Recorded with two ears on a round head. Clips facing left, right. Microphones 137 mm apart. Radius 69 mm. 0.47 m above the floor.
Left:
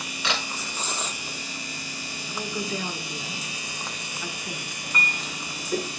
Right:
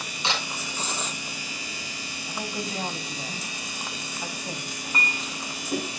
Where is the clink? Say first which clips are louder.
Even; 20° right (ahead or behind), 3 m.